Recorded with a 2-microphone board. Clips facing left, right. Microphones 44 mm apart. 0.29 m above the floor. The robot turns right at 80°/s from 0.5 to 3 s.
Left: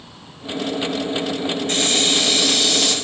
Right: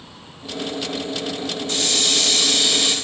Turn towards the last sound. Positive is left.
turn(degrees=-150)